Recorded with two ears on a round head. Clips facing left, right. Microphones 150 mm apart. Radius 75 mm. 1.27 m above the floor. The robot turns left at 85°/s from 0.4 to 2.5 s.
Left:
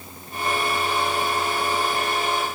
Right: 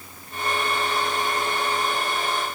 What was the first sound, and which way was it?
Only background noise.